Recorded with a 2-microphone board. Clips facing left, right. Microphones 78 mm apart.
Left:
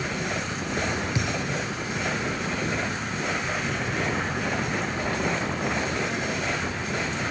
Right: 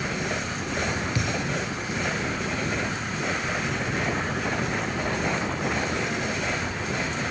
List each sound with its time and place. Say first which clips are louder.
1.1 s a thud: even; 20° left (ahead or behind), 1.8 m